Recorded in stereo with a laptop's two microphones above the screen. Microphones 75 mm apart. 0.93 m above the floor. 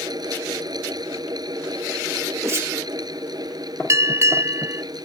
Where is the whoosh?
40° right (ahead or behind).